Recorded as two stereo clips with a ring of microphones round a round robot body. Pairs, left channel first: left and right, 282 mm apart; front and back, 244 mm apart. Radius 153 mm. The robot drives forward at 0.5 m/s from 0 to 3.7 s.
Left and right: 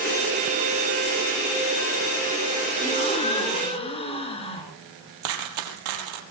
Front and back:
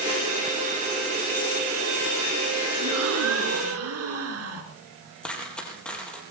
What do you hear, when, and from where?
2.8 s a gasp: 160° left, 4 m
5.2 s a dropped coin: 85° right, 3.5 m